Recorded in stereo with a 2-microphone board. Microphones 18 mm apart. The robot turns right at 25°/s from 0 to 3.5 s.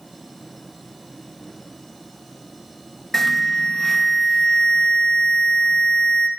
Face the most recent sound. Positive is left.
turn(degrees=15)  # may be behind; listen again after turning